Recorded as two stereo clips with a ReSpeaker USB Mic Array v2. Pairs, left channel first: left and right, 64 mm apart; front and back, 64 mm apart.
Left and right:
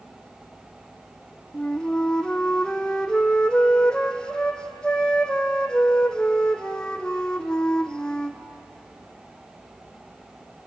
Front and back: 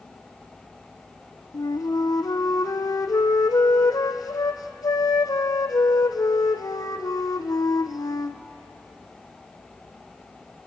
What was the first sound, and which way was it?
A flute, 10° left.